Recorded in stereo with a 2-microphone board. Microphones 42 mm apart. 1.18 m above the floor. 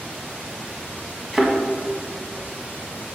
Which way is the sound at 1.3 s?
5° right (ahead or behind).